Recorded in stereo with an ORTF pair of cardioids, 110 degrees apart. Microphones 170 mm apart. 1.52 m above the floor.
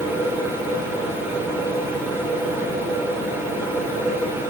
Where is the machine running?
15° right, 8.5 m.